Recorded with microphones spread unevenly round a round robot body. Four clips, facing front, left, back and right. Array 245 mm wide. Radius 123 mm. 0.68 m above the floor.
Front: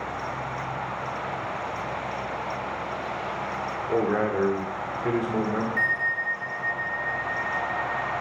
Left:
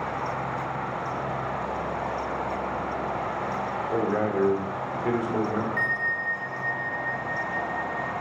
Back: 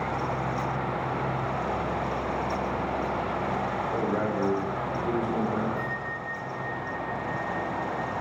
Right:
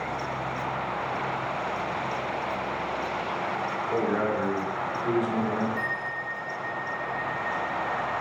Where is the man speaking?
5° left, 1.9 m; by 5.7 s 25° left, 2.5 m.